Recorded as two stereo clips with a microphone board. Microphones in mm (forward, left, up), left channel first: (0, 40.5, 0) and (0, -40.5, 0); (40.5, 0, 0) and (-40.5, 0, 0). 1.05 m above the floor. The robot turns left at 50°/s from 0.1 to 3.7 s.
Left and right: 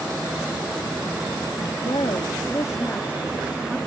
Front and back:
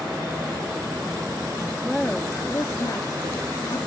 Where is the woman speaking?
90° left; by 3.8 s 5° right.